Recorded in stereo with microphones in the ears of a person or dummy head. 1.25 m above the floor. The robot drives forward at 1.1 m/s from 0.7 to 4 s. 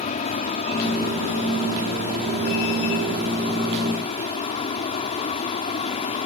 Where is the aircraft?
30° left (ahead or behind).